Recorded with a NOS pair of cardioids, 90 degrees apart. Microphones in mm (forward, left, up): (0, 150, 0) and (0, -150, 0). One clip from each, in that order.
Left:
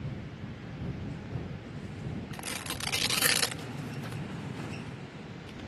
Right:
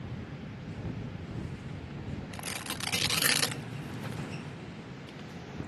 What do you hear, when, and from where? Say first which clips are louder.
2.3 s tearing paper: even; straight ahead